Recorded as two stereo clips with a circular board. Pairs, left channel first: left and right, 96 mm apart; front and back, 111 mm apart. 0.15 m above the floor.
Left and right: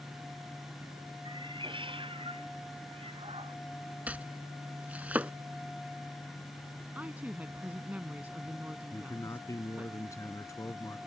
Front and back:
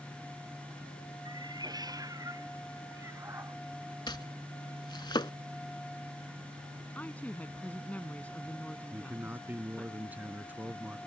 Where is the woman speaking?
50° right.